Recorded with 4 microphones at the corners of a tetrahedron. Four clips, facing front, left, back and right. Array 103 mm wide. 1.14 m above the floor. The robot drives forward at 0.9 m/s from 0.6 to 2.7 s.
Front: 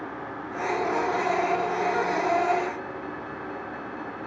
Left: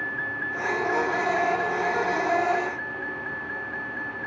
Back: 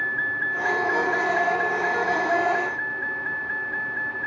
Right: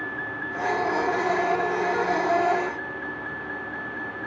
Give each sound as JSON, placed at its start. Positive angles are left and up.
{"t": 0.0, "sound": "a vehicle", "azimuth_deg": 175}